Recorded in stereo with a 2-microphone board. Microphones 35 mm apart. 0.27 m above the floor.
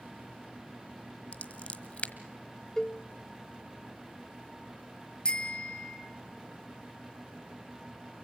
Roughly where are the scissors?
Left.